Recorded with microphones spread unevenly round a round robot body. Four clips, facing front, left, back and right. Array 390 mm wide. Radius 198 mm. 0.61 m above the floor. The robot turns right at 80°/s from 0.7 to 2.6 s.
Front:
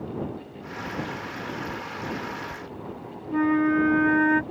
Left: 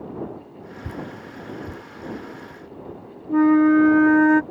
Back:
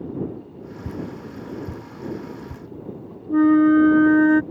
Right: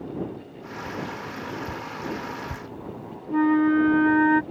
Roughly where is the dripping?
Left.